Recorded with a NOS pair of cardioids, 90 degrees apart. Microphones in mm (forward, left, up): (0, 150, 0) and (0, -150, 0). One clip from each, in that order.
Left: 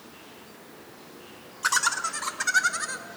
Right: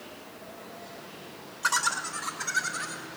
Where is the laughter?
30° left, 1.9 m; by 3.1 s 55° left, 1.8 m.